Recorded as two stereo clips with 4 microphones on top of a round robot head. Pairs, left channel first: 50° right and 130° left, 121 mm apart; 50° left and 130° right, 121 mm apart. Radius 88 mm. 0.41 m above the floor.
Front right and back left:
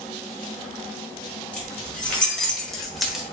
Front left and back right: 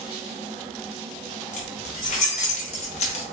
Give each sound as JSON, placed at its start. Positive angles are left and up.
{"t": 1.5, "sound": "keys jangling", "azimuth_deg": 30, "distance_m": 2.0}